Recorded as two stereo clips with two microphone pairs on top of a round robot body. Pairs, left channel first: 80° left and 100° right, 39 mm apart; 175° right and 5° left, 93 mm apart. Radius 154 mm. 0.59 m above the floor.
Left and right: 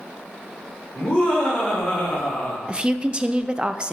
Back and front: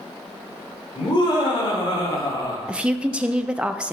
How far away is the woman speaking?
About 0.6 m.